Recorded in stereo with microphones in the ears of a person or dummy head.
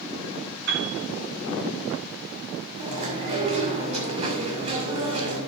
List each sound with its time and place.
0.7 s a piano: 65° right (ahead or behind), 3.5 m
2.8 s chewing: 30° right (ahead or behind), 6.5 m